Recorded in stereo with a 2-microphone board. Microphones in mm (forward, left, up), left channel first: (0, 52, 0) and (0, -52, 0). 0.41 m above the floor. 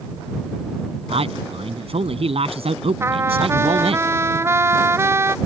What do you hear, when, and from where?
1.1 s a man speaking: 70° right (ahead or behind)
3.0 s a trumpet: 25° right (ahead or behind)